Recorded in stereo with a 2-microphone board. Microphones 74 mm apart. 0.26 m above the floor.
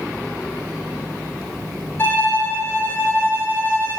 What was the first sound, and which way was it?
A violin, 30° left (ahead or behind).